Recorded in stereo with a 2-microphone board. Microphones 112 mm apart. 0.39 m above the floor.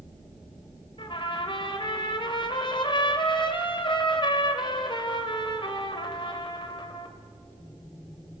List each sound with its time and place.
1.0 s a trumpet: 45° left (ahead or behind), 1.8 m